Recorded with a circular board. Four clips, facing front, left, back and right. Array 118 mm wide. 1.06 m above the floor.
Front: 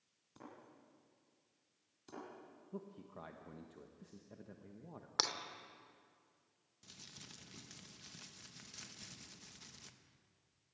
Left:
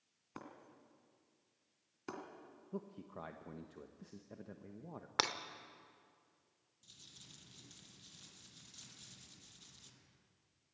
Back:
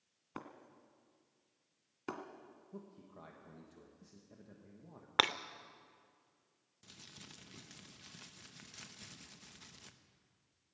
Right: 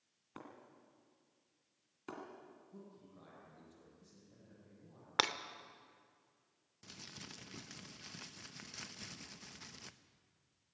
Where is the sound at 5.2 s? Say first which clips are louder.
Right 2 dB, back 8 dB; 170° right, 0.8 m.